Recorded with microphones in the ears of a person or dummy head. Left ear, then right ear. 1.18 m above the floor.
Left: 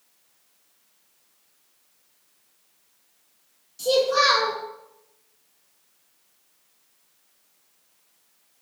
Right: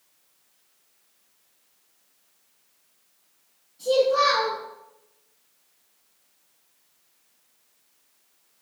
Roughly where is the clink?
I don't hear a clink.